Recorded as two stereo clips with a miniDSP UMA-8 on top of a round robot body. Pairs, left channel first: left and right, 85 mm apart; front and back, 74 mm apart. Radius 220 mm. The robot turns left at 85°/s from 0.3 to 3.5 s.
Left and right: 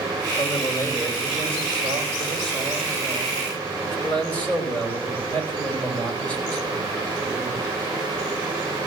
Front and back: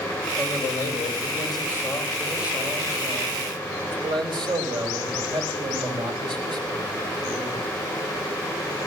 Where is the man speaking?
70° left, 5 m; by 7.6 s 165° left, 5 m.